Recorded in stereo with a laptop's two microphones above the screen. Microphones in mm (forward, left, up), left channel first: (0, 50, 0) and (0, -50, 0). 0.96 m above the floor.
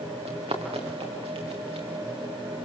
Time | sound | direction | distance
0.2 | running footsteps | 75° right (ahead or behind) | 5 m